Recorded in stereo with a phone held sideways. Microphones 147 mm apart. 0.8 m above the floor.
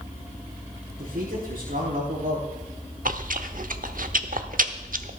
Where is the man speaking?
85° right, 9 m.